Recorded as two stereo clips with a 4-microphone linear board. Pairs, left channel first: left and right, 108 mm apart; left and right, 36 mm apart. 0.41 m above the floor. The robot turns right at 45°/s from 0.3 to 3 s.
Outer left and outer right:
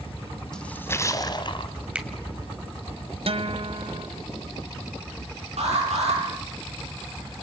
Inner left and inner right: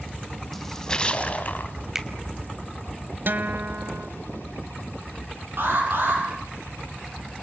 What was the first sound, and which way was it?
A splash, 5° left.